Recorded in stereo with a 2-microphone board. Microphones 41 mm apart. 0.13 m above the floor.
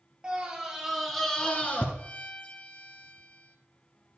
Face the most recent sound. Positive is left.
turn(degrees=30)  # may be behind; listen again after turning